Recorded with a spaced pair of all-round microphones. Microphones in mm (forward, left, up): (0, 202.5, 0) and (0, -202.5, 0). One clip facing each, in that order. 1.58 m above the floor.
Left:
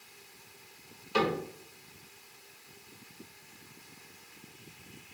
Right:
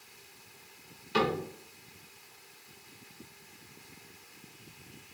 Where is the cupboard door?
35° right (ahead or behind), 1.7 m.